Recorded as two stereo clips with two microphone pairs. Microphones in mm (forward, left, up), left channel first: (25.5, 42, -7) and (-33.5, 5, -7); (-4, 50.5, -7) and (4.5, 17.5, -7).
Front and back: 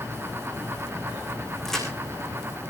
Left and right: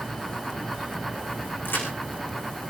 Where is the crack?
115° left, 5.5 m.